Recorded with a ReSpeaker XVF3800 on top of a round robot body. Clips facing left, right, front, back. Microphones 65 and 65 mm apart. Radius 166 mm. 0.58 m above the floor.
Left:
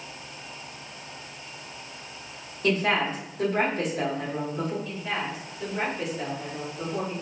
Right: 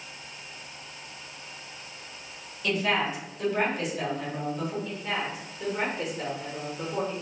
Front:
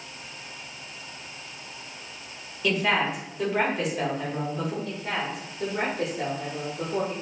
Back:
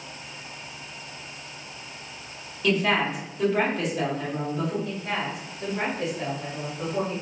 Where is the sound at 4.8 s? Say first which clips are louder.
Even, back 1 dB; 5° right, 1.0 m.